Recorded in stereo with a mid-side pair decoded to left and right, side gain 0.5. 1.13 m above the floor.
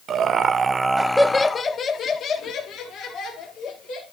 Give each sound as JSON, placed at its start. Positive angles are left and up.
{"t": 0.1, "sound": "laughter", "azimuth_deg": -60, "distance_m": 0.9}